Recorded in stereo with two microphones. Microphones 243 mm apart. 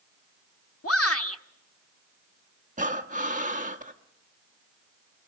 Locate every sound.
0.8 s a shout: 65° left (ahead or behind), 1.2 m
2.8 s breathing: 30° right (ahead or behind), 1.1 m